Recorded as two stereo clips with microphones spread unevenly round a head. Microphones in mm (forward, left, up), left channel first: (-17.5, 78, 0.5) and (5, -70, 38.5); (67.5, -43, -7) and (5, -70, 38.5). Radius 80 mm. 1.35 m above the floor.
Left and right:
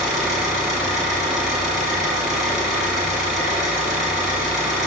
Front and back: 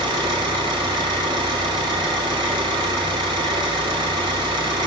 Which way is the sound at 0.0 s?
170° right.